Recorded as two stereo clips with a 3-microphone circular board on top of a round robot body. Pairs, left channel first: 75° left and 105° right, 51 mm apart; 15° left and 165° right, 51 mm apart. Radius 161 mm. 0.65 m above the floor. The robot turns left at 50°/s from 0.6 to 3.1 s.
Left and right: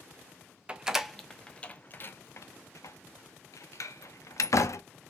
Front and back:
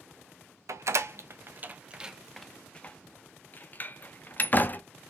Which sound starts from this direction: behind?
A door slam, at 0.7 s.